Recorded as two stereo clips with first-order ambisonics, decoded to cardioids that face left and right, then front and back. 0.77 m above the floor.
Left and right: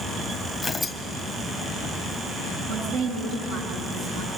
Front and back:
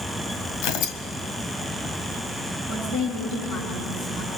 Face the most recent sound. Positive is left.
turn(degrees=-50)